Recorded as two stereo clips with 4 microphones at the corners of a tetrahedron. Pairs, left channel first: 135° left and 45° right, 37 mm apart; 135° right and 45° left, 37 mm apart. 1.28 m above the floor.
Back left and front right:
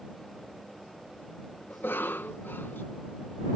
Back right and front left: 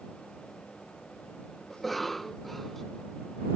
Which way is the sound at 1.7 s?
140° left.